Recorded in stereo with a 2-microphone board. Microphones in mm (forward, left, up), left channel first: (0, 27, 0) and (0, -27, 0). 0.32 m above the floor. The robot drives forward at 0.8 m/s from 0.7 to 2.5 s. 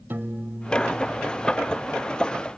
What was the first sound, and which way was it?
A piano, 45° right (ahead or behind).